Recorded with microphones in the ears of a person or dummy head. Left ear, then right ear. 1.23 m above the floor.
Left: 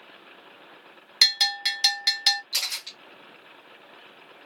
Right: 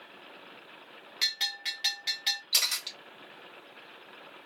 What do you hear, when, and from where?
1.2 s a bell: 50° left (ahead or behind), 0.7 m
2.5 s a camera shutter: 25° right (ahead or behind), 1.0 m